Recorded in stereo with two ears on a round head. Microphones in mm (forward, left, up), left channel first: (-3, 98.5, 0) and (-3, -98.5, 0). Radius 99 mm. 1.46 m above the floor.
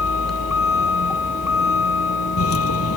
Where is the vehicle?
80° left.